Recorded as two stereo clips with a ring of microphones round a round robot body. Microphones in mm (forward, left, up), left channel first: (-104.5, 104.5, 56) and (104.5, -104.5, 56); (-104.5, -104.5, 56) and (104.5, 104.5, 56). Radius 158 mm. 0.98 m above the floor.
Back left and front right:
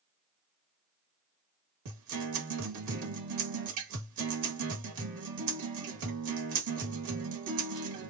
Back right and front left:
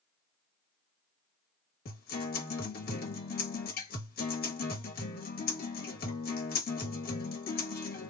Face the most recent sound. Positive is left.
turn(degrees=-75)